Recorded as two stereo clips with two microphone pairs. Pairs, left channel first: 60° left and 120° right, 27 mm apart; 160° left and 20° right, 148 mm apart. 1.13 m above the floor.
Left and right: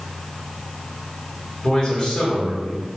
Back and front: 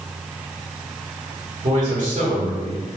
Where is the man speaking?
5° left, 1.6 m.